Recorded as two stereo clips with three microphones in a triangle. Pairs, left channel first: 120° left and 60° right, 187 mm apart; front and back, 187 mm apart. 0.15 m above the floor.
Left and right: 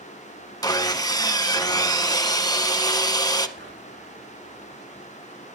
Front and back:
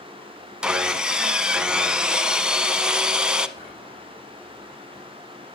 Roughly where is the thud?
I don't hear a thud.